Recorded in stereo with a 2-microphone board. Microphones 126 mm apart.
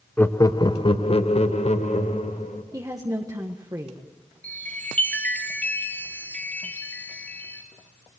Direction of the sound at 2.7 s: 25° right (ahead or behind).